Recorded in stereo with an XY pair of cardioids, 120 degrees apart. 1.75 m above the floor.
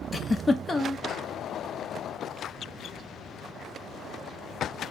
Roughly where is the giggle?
Ahead.